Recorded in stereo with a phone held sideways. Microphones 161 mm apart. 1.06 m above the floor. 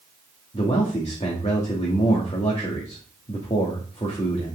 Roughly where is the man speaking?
Left.